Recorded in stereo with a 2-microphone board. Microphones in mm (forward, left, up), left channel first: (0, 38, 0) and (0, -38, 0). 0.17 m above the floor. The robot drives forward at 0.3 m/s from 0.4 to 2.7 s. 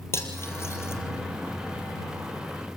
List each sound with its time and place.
0.1 s cutlery clinking: 35° left (ahead or behind), 3 m; by 1.0 s 40° left (ahead or behind), 3 m